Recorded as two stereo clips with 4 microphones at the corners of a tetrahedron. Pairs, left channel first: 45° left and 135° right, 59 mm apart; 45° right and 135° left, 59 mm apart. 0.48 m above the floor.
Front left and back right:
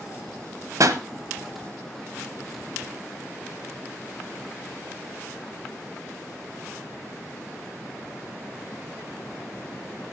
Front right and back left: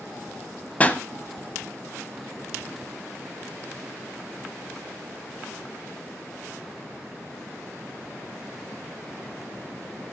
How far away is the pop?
About 1.0 m.